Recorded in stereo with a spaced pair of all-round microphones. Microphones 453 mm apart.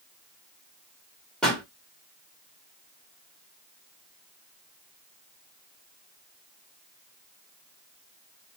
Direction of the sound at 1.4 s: Centre (ahead or behind).